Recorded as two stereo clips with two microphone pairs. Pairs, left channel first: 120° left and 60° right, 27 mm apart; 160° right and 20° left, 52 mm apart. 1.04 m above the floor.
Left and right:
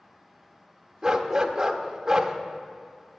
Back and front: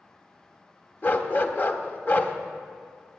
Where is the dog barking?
125° right, 0.9 m.